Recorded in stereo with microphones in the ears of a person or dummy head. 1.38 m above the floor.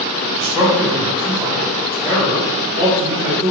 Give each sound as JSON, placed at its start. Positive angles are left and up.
{"t": 0.4, "sound": "a man speaking", "side_deg": -10, "distance_m": 1.5}